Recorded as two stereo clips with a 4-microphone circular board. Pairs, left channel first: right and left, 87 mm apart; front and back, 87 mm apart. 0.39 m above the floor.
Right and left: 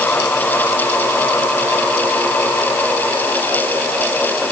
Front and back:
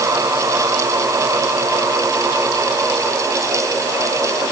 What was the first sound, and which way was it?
Only background noise.